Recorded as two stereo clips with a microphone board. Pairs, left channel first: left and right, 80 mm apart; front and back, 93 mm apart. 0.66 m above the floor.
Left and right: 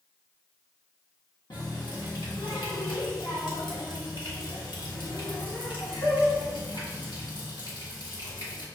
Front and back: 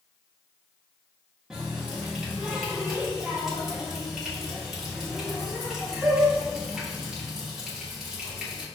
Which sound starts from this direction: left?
A running tap, at 1.5 s.